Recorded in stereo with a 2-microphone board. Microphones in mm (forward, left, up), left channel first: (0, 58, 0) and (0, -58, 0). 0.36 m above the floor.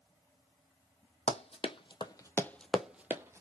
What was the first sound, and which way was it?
Running footsteps, 65° left (ahead or behind).